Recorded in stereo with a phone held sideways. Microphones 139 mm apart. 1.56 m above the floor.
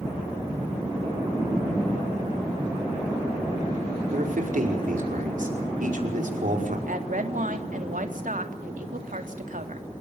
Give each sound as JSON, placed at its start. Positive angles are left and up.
{"t": 4.1, "sound": "a man speaking", "side_deg": -75, "distance_m": 5.5}
{"t": 6.9, "sound": "a woman speaking", "side_deg": -70, "distance_m": 3.0}